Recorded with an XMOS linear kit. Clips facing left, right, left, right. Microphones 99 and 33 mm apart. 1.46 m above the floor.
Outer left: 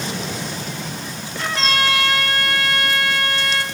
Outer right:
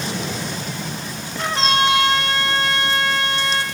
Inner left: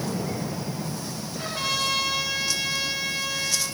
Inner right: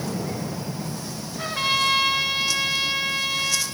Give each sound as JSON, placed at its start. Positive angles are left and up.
{"t": 1.4, "sound": "a trumpet", "side_deg": -25, "distance_m": 5.0}